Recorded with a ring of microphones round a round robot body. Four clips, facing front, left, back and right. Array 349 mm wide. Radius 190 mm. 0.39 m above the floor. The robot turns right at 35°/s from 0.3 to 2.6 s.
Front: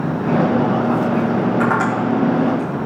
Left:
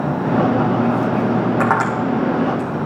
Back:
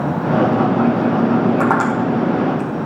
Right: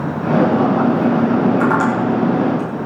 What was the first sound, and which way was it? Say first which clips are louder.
Tapping: right 2 dB, back 1 dB; 140° left.